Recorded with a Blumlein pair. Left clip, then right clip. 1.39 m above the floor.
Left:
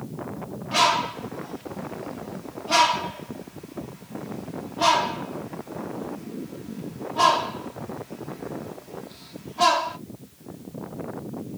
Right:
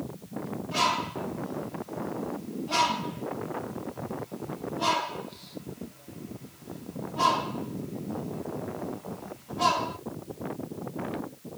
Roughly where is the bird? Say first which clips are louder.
Left 6 dB; ahead left.